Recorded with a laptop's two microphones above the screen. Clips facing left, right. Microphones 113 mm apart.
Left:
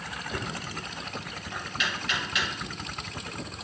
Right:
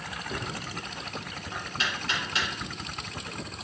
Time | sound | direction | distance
0.3 | knocking | 35° right (ahead or behind) | 1.5 m